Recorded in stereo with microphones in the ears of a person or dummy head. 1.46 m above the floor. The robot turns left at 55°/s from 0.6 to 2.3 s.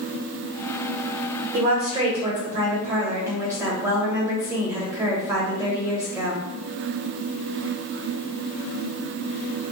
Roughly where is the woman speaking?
Behind right.